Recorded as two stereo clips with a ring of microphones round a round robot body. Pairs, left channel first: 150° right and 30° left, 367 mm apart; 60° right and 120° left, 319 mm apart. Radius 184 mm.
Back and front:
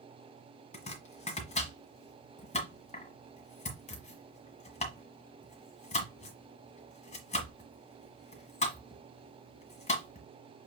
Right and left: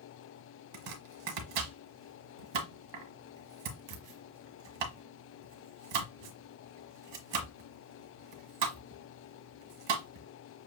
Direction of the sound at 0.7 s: 135° left.